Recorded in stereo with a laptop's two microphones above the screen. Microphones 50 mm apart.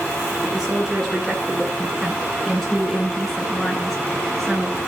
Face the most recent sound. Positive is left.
turn(degrees=5)  # may be behind; listen again after turning